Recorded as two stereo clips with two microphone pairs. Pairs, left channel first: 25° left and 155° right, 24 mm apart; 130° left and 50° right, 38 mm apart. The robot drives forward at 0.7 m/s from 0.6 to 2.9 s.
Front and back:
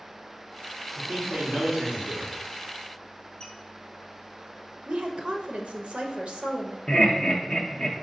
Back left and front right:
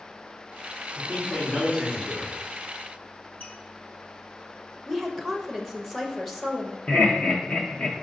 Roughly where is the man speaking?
Behind right.